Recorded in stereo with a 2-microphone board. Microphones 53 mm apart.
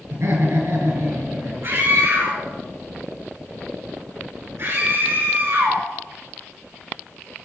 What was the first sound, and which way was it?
Laughter, 60° right (ahead or behind).